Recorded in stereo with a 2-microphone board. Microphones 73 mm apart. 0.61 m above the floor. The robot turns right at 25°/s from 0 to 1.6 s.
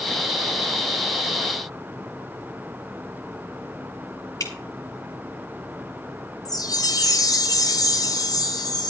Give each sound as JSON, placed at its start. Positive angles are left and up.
{"t": 4.4, "sound": "dripping", "side_deg": 50, "distance_m": 3.0}
{"t": 6.5, "sound": "a chime", "side_deg": 60, "distance_m": 1.6}